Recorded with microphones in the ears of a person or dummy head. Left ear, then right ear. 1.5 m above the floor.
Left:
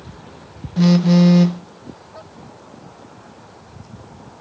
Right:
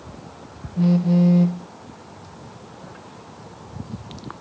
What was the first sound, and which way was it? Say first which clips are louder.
A phone buzzing: left 5 dB; 55° left (ahead or behind).